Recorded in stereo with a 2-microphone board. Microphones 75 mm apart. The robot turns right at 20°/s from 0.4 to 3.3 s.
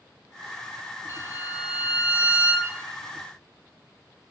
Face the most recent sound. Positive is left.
turn(degrees=90)